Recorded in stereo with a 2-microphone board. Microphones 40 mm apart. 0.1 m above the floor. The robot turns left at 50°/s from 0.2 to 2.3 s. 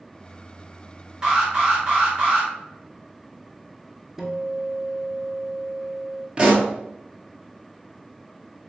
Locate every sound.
1.2 s an alarm: 20° right (ahead or behind), 1.7 m; by 2.5 s 30° right (ahead or behind), 1.7 m
4.2 s a guitar: 10° right (ahead or behind), 0.7 m
6.4 s a pop: 25° right (ahead or behind), 1.0 m